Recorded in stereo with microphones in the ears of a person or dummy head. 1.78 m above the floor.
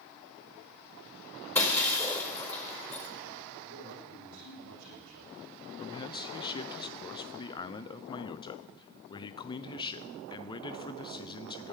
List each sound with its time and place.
1.6 s breaking glass: 15° left (ahead or behind), 4.5 m
3.6 s a man speaking: 75° right (ahead or behind), 6.5 m
5.8 s a man speaking: 25° left (ahead or behind), 0.9 m